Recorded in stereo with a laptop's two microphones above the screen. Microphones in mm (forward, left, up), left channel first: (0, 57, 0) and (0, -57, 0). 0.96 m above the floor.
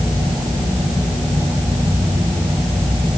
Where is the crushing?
No crushing in this recording.